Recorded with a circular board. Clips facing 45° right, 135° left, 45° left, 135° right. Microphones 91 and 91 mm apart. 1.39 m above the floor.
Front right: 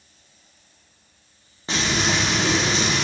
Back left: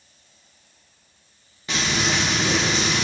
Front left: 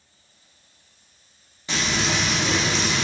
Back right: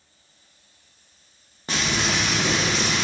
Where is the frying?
100° right, 0.9 m.